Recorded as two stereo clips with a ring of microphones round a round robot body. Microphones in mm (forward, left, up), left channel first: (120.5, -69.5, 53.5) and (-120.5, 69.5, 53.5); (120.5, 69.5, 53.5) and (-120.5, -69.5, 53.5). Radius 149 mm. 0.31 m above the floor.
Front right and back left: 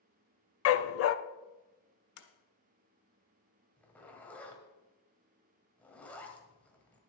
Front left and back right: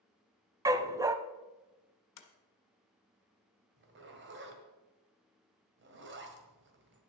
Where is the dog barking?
70° right, 0.5 m.